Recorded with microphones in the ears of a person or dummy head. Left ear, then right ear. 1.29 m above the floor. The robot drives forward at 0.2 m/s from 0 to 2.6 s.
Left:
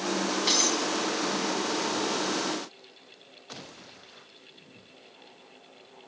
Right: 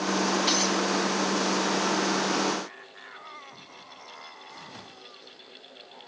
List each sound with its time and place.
0.5 s breaking glass: centre (ahead or behind), 4 m